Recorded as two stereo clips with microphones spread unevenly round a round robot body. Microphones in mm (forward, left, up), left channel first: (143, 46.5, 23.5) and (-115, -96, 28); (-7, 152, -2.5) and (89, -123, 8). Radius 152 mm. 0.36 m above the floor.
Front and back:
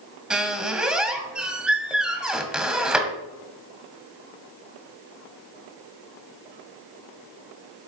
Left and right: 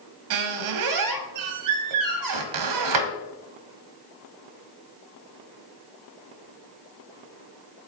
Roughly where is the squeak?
Ahead right.